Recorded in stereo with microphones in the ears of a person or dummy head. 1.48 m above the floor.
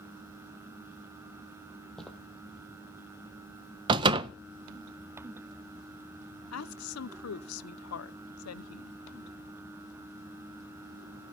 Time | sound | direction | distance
2.0 | footsteps | 5° left (ahead or behind) | 2.5 m
3.9 | a door slam | 30° right (ahead or behind) | 0.9 m
6.5 | a woman speaking | 85° left | 0.8 m